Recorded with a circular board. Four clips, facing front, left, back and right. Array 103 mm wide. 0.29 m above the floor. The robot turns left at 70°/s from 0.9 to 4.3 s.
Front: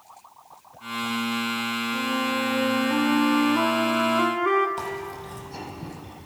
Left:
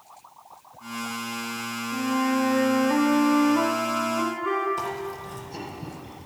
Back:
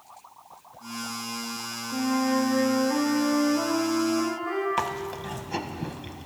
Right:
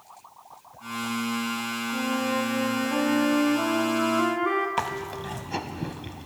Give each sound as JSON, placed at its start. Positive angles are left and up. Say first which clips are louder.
{"t": 1.9, "sound": "a flute", "louder": "left 3 dB, back 4 dB", "azimuth_deg": 155, "distance_m": 0.6}
{"t": 4.8, "sound": "chewing", "louder": "right 1 dB, back 3 dB", "azimuth_deg": -130, "distance_m": 0.6}